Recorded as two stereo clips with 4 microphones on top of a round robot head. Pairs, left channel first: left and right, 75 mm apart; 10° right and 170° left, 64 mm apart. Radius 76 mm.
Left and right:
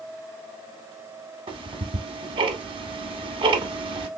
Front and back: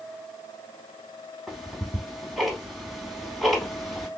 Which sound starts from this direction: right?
Ticking, at 1.5 s.